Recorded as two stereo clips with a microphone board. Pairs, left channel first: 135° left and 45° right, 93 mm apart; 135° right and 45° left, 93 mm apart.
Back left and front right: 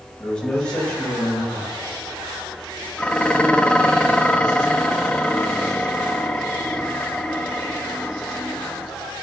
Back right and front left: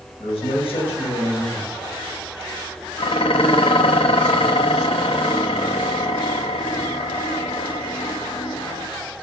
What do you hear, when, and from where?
0.2 s a man speaking: 145° right, 5.5 m
3.0 s dishes clattering: 145° right, 0.9 m